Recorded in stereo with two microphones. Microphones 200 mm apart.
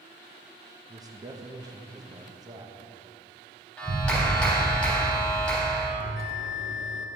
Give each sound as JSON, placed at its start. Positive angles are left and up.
{"t": 0.9, "sound": "a man speaking", "side_deg": -20, "distance_m": 1.0}
{"t": 3.8, "sound": "a clap", "side_deg": 5, "distance_m": 3.5}
{"t": 6.0, "sound": "a bell", "side_deg": -80, "distance_m": 1.0}